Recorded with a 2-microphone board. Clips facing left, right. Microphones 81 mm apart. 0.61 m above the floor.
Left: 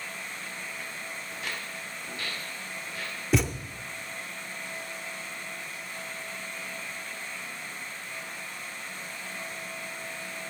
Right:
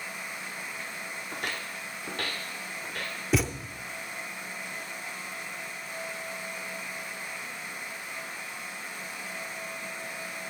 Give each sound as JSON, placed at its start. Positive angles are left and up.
{"t": 1.3, "sound": "footsteps", "side_deg": -65, "distance_m": 1.3}
{"t": 3.3, "sound": "a thud", "side_deg": 0, "distance_m": 0.5}